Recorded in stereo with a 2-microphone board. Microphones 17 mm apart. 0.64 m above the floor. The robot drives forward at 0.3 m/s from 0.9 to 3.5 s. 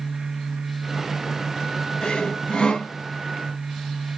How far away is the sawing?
About 2.5 m.